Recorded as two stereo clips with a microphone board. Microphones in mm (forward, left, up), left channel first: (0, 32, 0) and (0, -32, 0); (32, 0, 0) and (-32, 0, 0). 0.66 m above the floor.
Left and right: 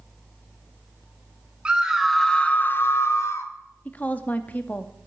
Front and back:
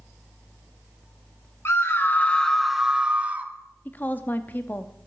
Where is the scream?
25° right, 0.7 m; by 3.5 s 120° left, 1.0 m.